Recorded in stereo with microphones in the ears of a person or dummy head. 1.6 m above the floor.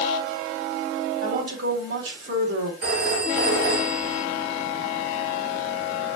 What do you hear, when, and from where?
1.2 s a woman speaking: 70° right (ahead or behind), 3 m
2.8 s a phone ringing: 70° right (ahead or behind), 3 m